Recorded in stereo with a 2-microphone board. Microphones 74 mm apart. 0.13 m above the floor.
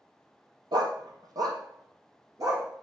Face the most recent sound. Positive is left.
turn(degrees=-50)  # may be behind; listen again after turning